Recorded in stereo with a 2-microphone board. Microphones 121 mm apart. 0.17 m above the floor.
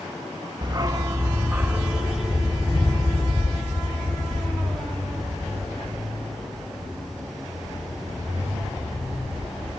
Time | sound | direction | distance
0.6 | a dog barking | 35° right (ahead or behind) | 0.6 m